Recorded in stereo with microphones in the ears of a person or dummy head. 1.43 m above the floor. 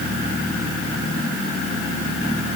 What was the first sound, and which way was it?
Only background noise.